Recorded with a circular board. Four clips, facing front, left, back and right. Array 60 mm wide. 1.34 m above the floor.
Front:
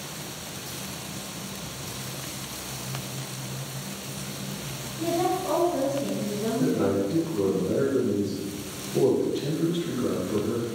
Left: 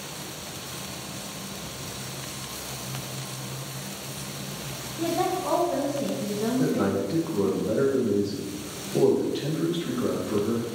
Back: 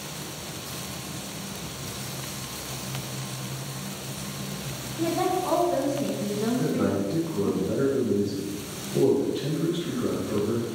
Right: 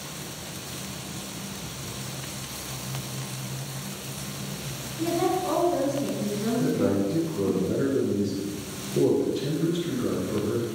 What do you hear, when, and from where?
5.0 s a woman speaking: 125° left, 2 m
6.6 s a man speaking: 90° left, 2.5 m